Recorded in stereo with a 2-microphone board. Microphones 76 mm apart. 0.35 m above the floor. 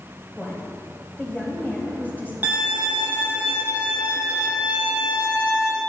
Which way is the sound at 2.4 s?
25° right (ahead or behind).